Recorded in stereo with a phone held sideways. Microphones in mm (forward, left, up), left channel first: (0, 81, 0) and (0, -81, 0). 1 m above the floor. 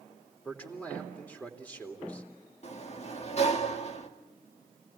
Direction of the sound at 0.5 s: 10° left (ahead or behind).